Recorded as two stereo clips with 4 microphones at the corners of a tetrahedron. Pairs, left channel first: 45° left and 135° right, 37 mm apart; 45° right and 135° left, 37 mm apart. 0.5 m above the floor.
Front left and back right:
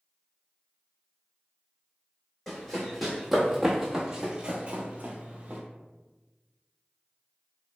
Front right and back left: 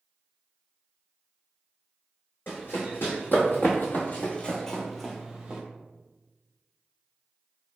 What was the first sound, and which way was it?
Running footsteps, 40° right.